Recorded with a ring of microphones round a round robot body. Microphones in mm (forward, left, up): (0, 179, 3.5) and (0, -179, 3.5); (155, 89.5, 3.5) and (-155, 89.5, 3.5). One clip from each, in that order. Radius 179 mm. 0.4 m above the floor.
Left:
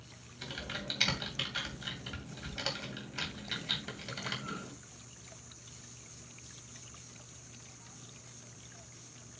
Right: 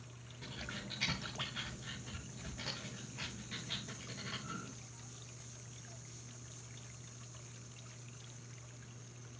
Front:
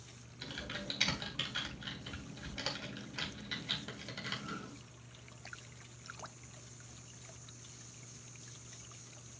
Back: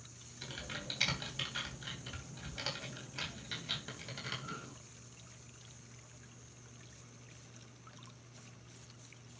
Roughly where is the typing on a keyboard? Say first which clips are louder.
Left 7 dB, front 1 dB; left.